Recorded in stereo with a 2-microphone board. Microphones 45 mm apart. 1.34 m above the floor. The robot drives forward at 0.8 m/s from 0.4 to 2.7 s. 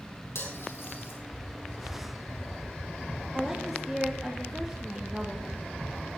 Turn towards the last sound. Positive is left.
turn(degrees=-10)  # may be behind; listen again after turning